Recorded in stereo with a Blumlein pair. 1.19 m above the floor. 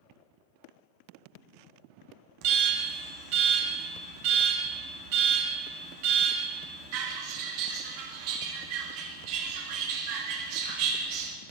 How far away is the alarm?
About 1.3 m.